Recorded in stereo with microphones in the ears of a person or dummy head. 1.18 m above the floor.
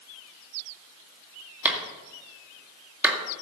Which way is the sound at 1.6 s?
10° right (ahead or behind).